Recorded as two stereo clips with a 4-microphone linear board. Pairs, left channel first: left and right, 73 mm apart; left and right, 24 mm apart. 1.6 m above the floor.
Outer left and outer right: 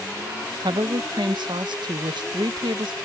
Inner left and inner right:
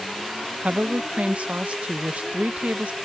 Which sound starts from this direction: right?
A woman speaking, at 0.6 s.